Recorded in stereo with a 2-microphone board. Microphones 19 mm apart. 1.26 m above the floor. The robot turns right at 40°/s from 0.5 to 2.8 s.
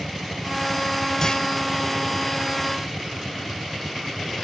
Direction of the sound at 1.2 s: 30° left (ahead or behind).